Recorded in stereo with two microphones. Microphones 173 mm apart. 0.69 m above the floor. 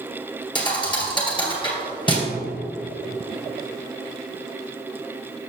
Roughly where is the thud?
Left.